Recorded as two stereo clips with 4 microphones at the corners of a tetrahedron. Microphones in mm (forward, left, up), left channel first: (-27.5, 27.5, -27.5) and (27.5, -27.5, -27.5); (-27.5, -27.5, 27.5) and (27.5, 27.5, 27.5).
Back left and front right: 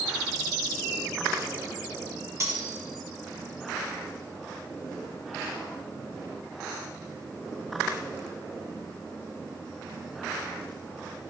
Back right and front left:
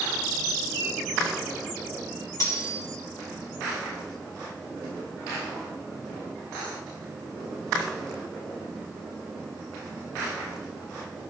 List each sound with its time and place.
2.4 s cutlery clinking: 95° right, 2.5 m